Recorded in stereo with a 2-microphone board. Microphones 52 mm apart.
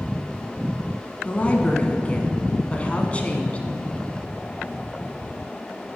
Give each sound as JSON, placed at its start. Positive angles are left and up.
{"t": 1.2, "sound": "a woman speaking", "side_deg": 25, "distance_m": 1.4}